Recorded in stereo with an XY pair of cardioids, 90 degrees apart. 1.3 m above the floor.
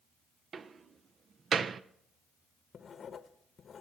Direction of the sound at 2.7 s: 55° left.